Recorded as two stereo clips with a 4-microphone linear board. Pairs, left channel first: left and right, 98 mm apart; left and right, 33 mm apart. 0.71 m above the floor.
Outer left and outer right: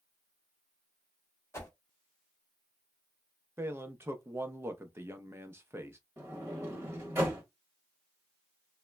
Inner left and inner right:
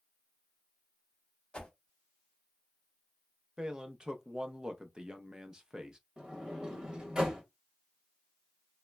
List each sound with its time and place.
1.5 s a whoosh: 30° left (ahead or behind), 0.8 m
3.6 s a man speaking: 30° right (ahead or behind), 0.5 m
6.2 s a sliding door: 30° right (ahead or behind), 1.0 m